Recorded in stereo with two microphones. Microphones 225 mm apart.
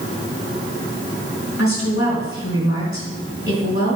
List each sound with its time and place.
1.6 s a woman speaking: 70° left (ahead or behind), 3.5 m